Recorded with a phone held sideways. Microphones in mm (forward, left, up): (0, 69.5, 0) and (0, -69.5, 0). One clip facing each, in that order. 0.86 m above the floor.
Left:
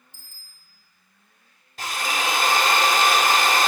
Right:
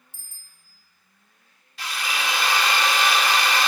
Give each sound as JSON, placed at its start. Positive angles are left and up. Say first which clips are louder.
{"t": 0.1, "sound": "a bicycle bell", "louder": "left 1 dB", "side_deg": -80, "distance_m": 2.5}
{"t": 1.8, "sound": "a drill", "louder": "left 3 dB", "side_deg": 45, "distance_m": 1.3}